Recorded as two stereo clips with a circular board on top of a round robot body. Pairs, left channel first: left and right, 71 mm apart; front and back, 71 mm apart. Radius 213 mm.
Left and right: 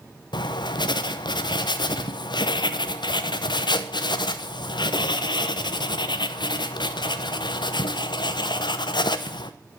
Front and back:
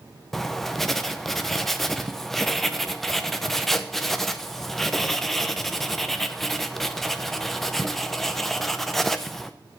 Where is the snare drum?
I don't hear a snare drum.